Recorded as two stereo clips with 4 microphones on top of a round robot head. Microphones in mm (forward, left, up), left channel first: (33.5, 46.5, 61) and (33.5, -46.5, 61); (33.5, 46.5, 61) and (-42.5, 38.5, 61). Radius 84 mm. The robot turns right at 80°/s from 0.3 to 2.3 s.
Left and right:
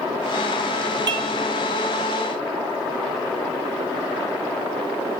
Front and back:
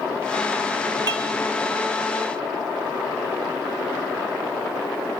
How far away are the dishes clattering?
About 1.2 m.